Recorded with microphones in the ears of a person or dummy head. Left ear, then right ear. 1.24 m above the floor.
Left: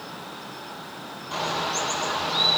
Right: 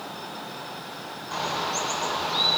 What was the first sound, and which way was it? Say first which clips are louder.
A bird: left 1 dB; centre (ahead or behind).